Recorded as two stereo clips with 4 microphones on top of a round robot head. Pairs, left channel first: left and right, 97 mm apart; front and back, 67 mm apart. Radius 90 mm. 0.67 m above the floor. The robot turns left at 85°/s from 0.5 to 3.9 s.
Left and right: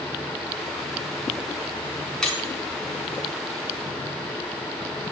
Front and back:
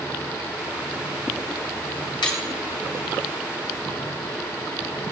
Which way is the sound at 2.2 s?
10° left.